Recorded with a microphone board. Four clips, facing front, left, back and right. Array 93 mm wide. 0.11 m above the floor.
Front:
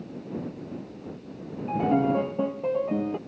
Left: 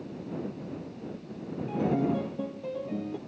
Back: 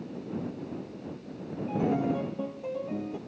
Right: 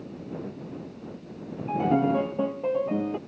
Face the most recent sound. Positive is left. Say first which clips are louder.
# right 5 dB, front 5 dB
turn(degrees=-50)